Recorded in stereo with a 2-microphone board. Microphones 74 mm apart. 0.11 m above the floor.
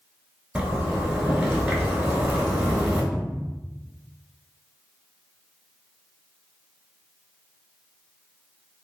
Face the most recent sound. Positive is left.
turn(degrees=10)  # may be behind; listen again after turning